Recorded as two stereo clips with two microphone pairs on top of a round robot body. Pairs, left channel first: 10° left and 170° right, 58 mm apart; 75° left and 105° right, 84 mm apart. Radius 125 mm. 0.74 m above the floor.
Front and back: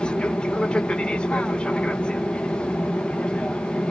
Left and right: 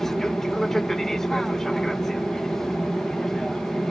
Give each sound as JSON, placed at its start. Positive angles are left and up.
{"t": 0.0, "sound": "an aircraft", "azimuth_deg": 5}